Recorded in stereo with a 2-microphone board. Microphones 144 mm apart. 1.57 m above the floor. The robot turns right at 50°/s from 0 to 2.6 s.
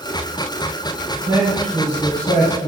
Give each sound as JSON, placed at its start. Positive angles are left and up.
{"t": 1.3, "sound": "a man speaking", "azimuth_deg": -15, "distance_m": 1.3}